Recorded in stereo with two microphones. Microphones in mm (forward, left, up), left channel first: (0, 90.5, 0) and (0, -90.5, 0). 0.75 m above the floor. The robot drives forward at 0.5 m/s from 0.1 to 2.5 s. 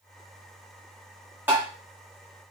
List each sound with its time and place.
1.5 s tapping: 10° right (ahead or behind), 1.9 m